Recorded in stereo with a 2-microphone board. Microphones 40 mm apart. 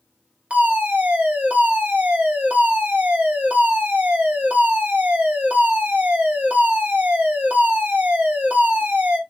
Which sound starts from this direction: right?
A fire alarm, at 0.5 s.